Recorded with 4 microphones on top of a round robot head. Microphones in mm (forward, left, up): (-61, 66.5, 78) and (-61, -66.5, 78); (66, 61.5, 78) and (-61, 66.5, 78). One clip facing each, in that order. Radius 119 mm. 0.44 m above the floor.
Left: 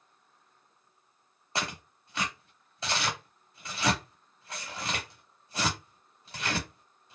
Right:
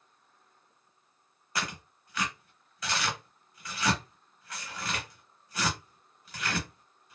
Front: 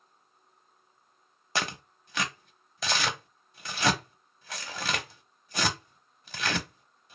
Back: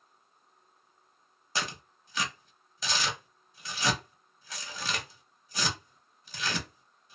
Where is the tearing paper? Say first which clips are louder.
Left 1 dB, front 3 dB; 25° left, 0.6 m.